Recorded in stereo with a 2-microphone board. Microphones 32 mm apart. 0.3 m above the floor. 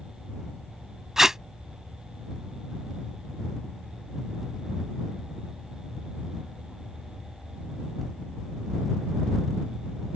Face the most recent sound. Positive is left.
turn(degrees=-20)  # may be behind; listen again after turning